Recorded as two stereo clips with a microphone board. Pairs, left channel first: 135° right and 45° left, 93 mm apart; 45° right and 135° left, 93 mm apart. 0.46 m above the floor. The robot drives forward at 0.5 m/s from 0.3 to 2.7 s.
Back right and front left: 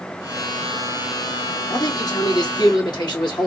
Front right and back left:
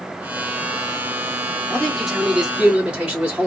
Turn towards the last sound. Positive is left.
turn(degrees=-150)